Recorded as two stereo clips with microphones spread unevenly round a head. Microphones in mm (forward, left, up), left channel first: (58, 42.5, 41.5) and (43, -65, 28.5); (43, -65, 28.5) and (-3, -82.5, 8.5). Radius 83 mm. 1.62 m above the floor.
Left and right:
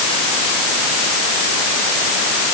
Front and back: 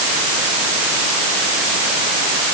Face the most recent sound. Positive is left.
No sound to turn to.